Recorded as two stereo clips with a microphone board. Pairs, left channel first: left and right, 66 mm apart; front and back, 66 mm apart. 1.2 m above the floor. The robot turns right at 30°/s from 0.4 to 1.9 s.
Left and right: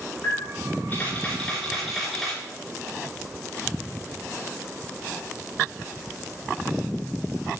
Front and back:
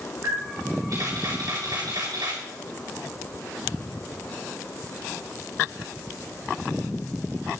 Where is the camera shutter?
135° left, 4.5 m; by 2.4 s straight behind, 4.5 m.